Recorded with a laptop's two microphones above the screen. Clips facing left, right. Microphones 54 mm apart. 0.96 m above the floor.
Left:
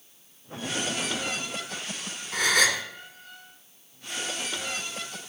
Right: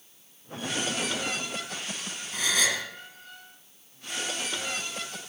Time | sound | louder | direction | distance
2.3 | a gasp | left 4 dB | 65° left (ahead or behind) | 1.8 m